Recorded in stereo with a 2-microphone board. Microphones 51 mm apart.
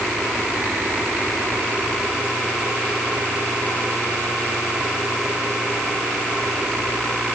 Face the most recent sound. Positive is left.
No sound to turn to.